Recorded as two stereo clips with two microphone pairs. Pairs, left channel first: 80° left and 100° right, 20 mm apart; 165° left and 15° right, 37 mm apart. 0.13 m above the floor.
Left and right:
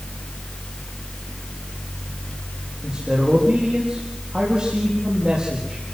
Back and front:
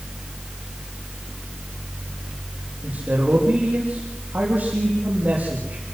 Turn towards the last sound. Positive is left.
turn(degrees=-55)